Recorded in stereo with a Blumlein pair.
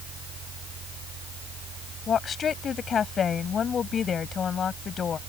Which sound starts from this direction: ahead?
A woman speaking, at 2.1 s.